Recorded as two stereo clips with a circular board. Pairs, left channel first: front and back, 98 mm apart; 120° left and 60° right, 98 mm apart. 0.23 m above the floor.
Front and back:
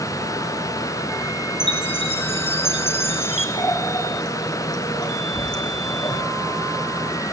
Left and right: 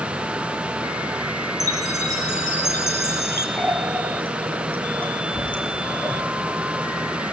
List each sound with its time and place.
1.6 s a chime: 10° right, 3.5 m
3.6 s a running tap: 45° left, 4 m